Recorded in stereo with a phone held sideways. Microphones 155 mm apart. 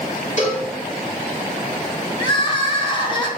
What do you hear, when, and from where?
0.4 s a cowbell: 60° left (ahead or behind), 2.5 m
2.2 s crying: 30° left (ahead or behind), 1.5 m